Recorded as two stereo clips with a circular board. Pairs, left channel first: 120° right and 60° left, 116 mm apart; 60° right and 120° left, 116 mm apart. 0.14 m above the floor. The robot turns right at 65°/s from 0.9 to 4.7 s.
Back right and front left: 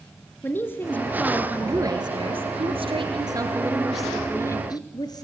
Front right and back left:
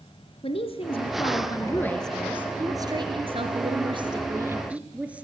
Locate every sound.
0.4 s a woman speaking: 50° right, 1.8 m; by 5.2 s 165° right, 1.8 m